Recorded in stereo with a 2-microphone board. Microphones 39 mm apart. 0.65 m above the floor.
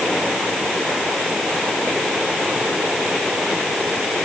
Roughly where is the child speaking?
I don't hear a child speaking.